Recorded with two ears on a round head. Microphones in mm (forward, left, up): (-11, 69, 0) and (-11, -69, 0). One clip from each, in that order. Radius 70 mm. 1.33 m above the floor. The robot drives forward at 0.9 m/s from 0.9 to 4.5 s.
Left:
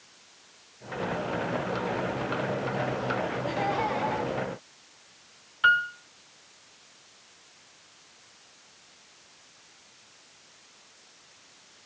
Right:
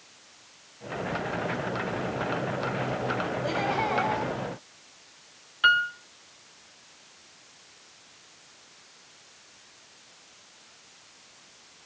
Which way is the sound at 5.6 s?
20° right (ahead or behind).